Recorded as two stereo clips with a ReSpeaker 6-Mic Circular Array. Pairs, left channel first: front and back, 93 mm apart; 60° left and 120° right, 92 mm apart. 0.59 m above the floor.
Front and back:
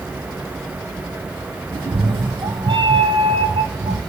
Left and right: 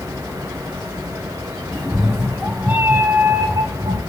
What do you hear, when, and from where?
1.7 s a cat meowing: 150° left, 1.5 m; by 4.0 s 160° right, 1.2 m